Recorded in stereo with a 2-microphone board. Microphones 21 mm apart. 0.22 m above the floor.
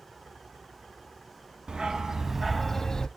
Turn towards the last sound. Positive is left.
turn(degrees=25)  # may be behind; listen again after turning